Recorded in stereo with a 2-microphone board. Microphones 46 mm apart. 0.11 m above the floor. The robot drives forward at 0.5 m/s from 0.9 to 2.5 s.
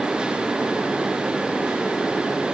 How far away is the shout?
I don't hear a shout.